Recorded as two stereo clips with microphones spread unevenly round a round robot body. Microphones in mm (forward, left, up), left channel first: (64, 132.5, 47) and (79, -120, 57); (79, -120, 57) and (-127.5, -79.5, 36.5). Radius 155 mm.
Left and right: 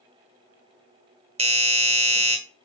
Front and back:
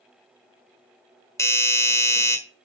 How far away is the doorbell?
About 1.3 m.